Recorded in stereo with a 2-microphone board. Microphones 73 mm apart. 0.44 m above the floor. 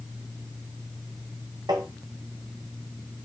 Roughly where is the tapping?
Right.